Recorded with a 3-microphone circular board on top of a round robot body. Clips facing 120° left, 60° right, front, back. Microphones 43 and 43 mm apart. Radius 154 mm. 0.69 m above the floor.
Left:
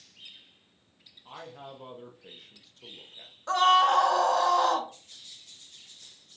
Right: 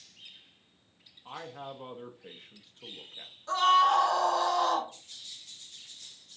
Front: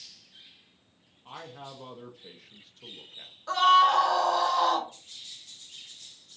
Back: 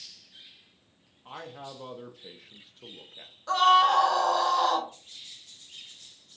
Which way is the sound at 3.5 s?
90° left.